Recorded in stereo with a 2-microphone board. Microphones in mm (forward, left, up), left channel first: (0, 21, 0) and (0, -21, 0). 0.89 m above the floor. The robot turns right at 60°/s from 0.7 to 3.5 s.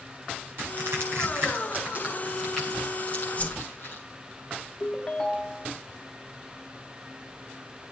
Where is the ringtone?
20° left (ahead or behind), 0.7 m.